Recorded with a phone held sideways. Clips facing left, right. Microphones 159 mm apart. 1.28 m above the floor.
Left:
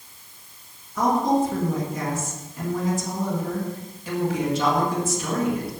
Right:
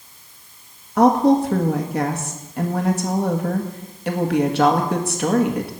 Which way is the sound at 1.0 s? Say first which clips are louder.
Right 6 dB; 85° right.